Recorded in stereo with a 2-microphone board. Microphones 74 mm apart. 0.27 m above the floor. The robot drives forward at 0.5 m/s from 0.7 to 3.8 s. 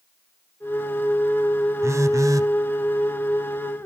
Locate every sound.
1.8 s a phone buzzing: 40° right (ahead or behind), 0.8 m; by 2.5 s 50° right (ahead or behind), 0.7 m